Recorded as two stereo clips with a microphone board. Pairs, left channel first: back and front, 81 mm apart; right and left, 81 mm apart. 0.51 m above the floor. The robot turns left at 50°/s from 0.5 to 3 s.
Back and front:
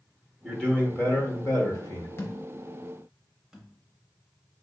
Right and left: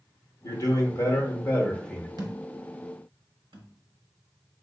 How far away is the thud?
About 0.7 m.